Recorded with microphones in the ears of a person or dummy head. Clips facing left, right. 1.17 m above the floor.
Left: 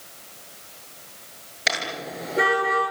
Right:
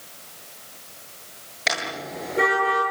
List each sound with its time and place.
1.7 s a car horn: centre (ahead or behind), 10 m; by 2.8 s 5° left (ahead or behind), 10 m